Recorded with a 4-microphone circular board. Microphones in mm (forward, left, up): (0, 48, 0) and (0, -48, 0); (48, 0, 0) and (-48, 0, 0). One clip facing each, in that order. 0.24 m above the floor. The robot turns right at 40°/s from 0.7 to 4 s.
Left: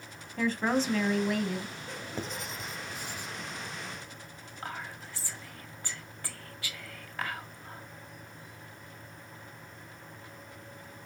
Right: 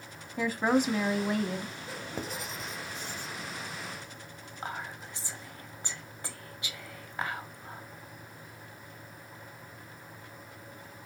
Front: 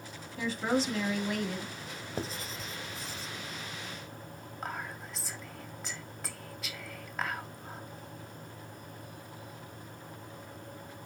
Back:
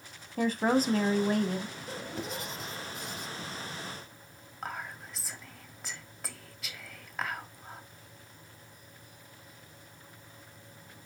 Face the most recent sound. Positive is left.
turn(degrees=-90)